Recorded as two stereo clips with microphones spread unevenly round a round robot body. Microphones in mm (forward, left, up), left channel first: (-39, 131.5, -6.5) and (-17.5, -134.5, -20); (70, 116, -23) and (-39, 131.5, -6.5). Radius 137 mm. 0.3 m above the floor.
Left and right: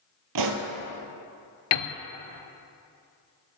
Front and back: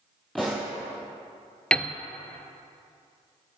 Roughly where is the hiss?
I don't hear a hiss.